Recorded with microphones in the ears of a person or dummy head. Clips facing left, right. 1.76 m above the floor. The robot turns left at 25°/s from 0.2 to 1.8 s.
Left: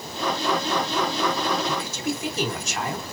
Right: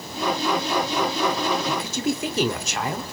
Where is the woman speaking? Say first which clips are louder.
Right 3 dB; 65° right (ahead or behind), 1.1 m; by 3.0 s 60° right (ahead or behind), 1.1 m.